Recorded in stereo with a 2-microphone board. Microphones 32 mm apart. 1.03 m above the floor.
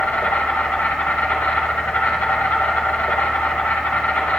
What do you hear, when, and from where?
0.0 s an insect: 80° left, 4.5 m